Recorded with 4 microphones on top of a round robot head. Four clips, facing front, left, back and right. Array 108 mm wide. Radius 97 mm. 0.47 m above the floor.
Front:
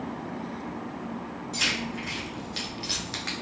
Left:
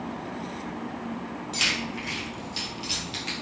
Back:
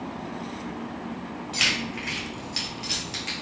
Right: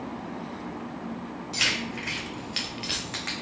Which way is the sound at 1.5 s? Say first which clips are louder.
Right 1 dB, back 2 dB; 150° right.